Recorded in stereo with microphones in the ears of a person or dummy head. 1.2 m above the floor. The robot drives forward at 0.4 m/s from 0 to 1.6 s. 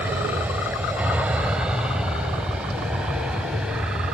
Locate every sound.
0.0 s an aircraft: 15° right (ahead or behind); by 4.2 s 10° right (ahead or behind)